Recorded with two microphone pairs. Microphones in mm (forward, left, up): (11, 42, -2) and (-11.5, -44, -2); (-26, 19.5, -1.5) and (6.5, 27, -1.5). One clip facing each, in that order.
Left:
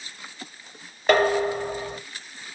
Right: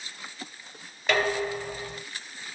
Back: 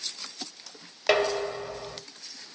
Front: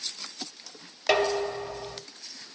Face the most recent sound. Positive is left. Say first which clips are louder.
# left 6 dB, even
turn(degrees=120)